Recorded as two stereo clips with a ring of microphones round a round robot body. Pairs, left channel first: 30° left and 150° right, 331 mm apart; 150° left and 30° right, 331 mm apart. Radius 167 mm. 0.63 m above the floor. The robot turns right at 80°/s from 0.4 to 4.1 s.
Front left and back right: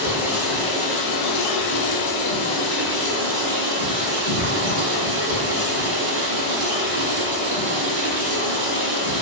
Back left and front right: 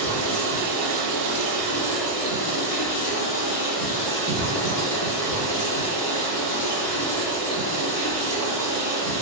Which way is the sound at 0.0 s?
65° right.